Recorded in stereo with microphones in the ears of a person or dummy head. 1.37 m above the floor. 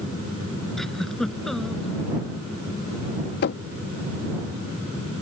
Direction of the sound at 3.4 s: 70° left (ahead or behind).